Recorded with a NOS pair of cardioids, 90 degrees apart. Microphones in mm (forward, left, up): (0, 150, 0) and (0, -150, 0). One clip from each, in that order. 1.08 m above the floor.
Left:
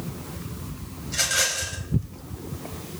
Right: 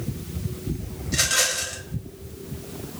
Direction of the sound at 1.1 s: 10° right.